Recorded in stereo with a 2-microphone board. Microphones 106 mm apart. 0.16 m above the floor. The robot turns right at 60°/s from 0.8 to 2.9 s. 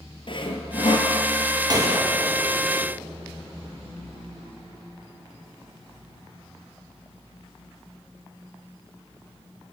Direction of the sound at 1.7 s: 40° right (ahead or behind).